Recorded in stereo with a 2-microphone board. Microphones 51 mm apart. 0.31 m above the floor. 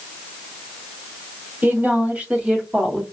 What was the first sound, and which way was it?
A woman speaking, 35° right (ahead or behind).